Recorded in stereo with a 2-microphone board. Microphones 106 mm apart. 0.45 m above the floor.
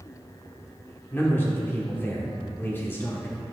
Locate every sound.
1.1 s a man speaking: 20° left (ahead or behind), 1.0 m